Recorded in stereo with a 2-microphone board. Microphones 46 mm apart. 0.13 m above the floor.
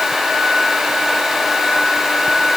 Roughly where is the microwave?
I don't hear a microwave.